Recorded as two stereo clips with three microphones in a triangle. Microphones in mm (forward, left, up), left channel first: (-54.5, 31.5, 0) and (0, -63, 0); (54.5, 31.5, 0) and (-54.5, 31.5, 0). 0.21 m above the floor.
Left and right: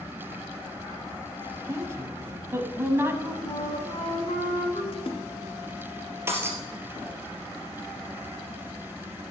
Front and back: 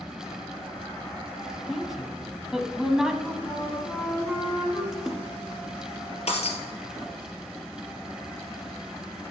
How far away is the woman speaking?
About 1.2 m.